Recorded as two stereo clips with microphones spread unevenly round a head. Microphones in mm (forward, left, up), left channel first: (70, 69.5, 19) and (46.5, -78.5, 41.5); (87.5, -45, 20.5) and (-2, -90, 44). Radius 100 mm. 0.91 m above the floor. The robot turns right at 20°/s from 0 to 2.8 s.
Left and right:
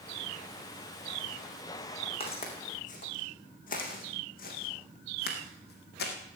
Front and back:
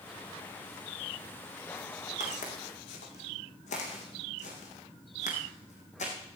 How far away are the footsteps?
About 3.5 m.